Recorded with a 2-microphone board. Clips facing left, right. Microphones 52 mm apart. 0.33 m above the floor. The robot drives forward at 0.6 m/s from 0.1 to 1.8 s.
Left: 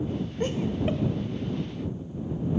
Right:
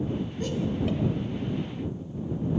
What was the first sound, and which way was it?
Laughter, 35° left (ahead or behind).